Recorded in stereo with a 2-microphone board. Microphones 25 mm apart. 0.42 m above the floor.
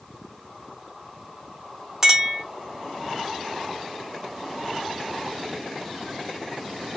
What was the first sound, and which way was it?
A clink, 15° right (ahead or behind).